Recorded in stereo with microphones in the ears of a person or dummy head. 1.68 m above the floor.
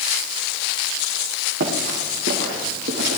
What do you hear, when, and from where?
1.6 s running footsteps: 65° right (ahead or behind), 5 m; by 3.2 s 70° right (ahead or behind), 5 m